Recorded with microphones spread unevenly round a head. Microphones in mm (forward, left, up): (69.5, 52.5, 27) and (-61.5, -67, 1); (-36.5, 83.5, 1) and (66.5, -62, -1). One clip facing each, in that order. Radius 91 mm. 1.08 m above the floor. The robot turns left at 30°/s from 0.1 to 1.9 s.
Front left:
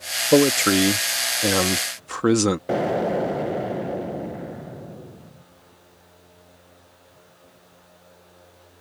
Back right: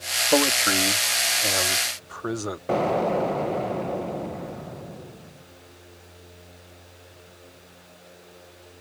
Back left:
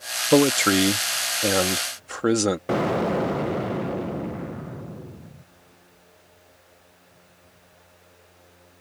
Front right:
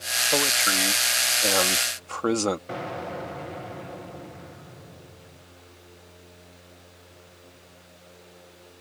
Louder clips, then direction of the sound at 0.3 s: Front left 7 dB, back left 11 dB; 100° left.